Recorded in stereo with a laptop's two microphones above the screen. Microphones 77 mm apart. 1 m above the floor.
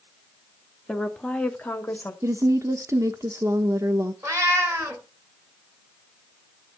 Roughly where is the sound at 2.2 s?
Right.